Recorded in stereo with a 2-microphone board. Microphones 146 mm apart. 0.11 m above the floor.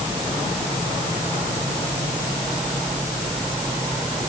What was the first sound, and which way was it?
Only background noise.